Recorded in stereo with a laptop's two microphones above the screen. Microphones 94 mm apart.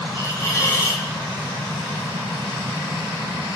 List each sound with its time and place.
0.1 s a hiss: 30° left (ahead or behind), 1.9 m